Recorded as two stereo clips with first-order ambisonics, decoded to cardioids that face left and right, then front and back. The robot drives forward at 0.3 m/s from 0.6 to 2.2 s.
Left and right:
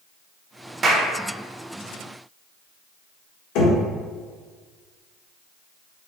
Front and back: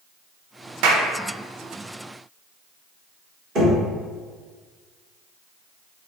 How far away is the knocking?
About 1.4 m.